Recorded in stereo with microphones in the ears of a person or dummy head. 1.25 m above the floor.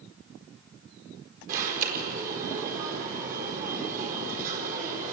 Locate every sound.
1.5 s an alarm: 40° right (ahead or behind), 4.5 m